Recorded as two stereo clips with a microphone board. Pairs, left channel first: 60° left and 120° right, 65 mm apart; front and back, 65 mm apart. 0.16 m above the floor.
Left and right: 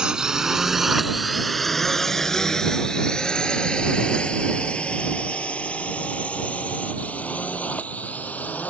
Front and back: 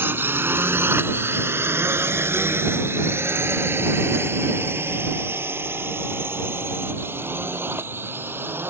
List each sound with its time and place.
0.0 s a drone: 175° left; by 8.7 s 125° left